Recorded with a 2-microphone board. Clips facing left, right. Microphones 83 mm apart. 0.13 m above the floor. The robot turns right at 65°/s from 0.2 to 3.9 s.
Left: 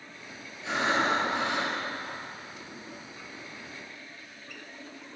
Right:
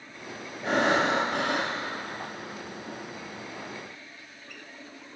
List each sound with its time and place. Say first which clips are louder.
0.6 s breathing: right 3 dB; 125° right, 3 m; by 1.8 s 50° right, 3 m